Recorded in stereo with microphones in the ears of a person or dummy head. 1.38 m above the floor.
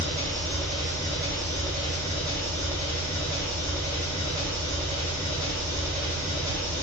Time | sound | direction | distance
0.0 | an engine running | 20° left (ahead or behind) | 1.7 m